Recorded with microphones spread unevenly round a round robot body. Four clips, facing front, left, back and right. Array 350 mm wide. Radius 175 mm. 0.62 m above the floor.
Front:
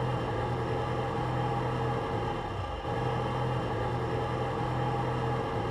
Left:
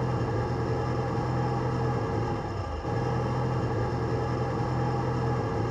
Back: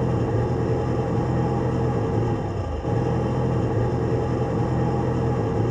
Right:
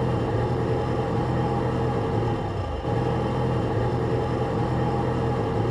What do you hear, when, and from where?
0.0 s an engine running: 155° right, 1.0 m